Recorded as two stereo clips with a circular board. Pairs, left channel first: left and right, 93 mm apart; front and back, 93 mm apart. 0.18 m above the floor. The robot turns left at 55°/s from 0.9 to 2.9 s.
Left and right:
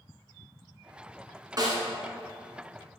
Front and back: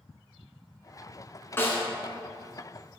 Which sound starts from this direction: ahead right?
A snare drum, at 1.6 s.